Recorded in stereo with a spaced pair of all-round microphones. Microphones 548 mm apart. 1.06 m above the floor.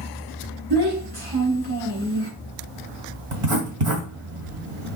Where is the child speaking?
45° right (ahead or behind), 4.5 m.